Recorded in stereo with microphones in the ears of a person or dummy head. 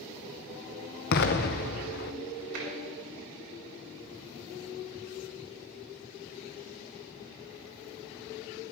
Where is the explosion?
50° left (ahead or behind), 0.7 m.